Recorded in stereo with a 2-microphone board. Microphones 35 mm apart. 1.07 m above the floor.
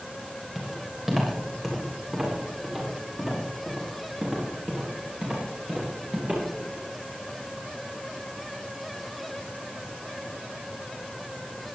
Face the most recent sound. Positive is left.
turn(degrees=-35)  # may be behind; listen again after turning